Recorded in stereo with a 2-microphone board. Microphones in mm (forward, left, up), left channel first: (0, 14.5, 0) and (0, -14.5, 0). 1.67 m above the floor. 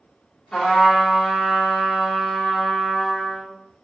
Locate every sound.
0.5 s a trumpet: 20° left (ahead or behind), 1.0 m